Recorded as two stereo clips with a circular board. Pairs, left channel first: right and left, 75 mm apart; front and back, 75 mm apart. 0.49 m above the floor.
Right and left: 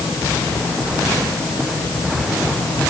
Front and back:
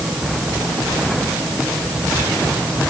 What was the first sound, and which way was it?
Only background noise.